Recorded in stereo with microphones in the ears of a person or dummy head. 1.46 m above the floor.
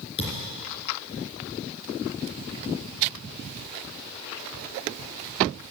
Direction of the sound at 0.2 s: 35° left (ahead or behind).